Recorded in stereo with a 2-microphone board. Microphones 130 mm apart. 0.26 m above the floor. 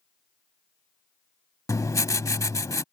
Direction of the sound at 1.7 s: 25° left (ahead or behind).